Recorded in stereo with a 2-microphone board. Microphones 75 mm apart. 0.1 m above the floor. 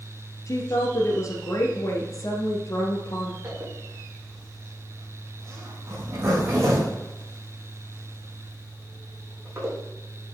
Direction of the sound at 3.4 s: 35° right (ahead or behind).